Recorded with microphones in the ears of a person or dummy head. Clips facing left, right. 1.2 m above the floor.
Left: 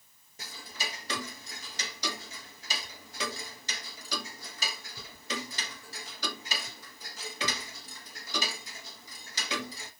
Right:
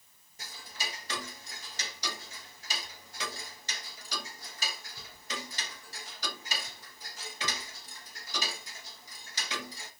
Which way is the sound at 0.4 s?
70° left (ahead or behind).